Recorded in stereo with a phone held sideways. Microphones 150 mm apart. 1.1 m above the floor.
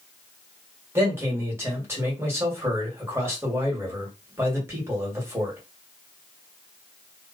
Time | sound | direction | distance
0.9 | a man speaking | 15° right (ahead or behind) | 1.5 m